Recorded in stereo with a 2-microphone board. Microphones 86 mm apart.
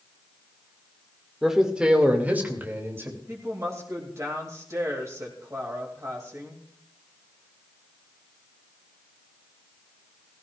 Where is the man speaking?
5° right (ahead or behind), 1.9 m; by 3.2 s 30° right (ahead or behind), 2.5 m.